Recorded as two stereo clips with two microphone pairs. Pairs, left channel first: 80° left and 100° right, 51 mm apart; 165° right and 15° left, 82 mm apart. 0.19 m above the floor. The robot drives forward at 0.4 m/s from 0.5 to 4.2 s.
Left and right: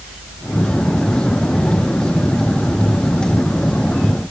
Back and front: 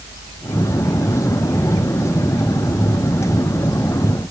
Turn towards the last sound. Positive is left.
No sound to turn to.